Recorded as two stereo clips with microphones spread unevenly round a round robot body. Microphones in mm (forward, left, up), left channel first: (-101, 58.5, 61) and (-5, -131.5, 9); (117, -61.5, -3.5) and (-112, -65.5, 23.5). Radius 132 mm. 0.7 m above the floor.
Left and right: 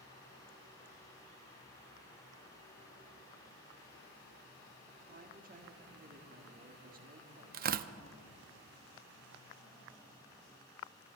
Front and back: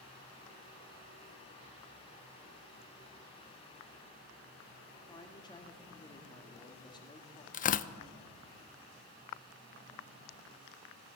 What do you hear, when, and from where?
5.1 s a woman speaking: 60° right, 1.7 m
7.5 s tearing paper: 40° right, 0.5 m